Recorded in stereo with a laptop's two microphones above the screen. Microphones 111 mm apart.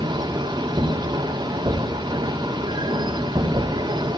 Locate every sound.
0.0 s a machine running: 40° right (ahead or behind), 3 m